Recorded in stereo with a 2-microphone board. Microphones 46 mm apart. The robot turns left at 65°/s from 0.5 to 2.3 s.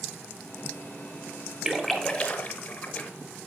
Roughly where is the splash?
Centre.